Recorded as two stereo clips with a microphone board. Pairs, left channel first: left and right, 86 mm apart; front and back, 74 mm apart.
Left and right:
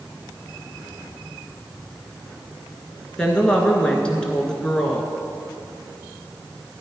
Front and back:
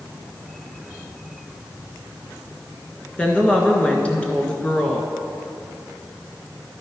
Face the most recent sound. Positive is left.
turn(degrees=35)